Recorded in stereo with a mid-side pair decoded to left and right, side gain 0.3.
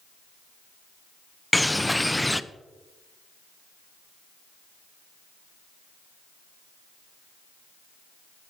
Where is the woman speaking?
I don't hear a woman speaking.